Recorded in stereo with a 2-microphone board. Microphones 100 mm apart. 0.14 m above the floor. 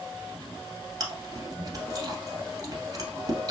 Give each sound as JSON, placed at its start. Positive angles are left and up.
{"t": 1.0, "sound": "chewing", "side_deg": -40, "distance_m": 1.3}